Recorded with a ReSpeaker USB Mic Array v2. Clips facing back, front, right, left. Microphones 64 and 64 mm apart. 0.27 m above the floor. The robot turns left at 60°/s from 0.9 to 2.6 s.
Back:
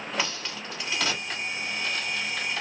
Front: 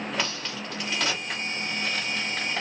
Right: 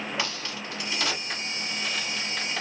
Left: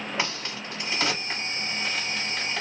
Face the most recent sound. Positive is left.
turn(degrees=-10)